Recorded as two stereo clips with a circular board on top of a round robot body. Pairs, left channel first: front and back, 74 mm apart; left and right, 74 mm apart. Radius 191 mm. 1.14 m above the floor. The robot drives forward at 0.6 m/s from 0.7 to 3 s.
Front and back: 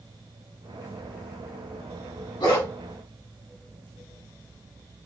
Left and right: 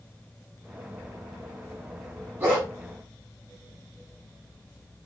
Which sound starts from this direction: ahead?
A dog barking, at 2.4 s.